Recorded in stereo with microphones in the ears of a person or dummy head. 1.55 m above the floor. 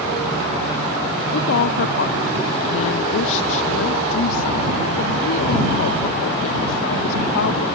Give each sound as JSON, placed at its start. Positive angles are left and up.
{"t": 1.3, "sound": "a woman speaking", "side_deg": 75}